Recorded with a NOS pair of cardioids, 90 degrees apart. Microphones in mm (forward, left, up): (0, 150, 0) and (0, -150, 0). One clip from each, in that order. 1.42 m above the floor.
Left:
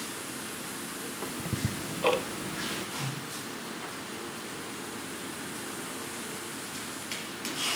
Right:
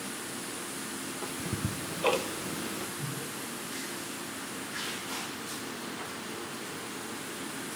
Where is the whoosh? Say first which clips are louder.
Left 2 dB; 45° left, 3 m.